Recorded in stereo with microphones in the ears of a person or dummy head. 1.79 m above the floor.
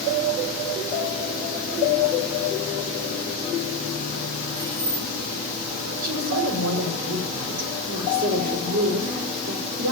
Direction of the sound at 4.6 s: 75° right (ahead or behind).